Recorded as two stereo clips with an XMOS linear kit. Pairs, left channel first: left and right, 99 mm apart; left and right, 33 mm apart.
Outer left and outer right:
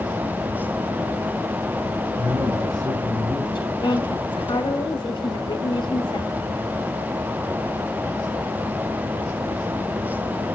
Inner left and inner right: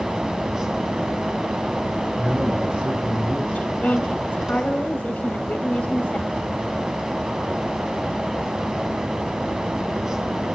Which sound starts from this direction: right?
A man speaking, at 2.2 s.